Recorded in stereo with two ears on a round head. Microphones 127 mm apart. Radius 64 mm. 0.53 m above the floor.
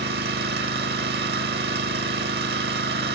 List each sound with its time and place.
0.0 s an engine running: 80° right, 1.0 m